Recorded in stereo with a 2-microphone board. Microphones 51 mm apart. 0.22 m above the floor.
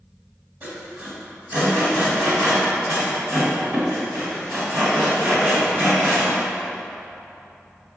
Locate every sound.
0.6 s sawing: 35° right (ahead or behind), 1.3 m